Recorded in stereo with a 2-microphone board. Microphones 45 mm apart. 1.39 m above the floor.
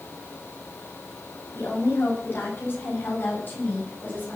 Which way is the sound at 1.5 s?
55° left (ahead or behind).